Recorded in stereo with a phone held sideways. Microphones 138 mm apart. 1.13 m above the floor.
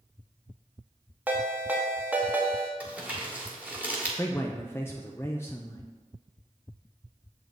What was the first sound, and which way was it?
A ringtone, 10° right (ahead or behind).